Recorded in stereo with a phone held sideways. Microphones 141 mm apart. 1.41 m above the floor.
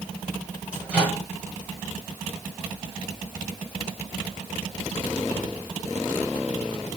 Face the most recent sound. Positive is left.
turn(degrees=-5)  # may be behind; listen again after turning